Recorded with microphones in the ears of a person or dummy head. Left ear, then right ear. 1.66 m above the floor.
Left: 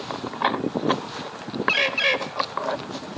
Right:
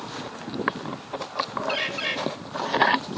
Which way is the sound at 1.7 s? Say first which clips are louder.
Left 11 dB; 65° left (ahead or behind).